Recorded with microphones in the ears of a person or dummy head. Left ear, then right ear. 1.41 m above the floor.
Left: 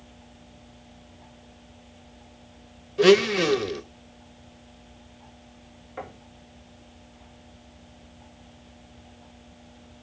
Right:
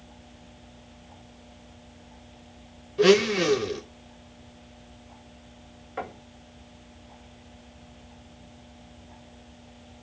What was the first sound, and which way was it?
A blender, 15° left (ahead or behind).